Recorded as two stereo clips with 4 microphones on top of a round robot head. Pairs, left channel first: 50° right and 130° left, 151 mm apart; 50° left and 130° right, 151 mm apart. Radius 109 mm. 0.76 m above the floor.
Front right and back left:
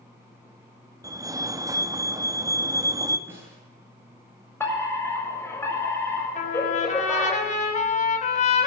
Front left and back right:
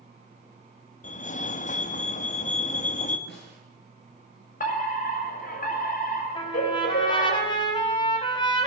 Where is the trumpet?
10° right, 5 m.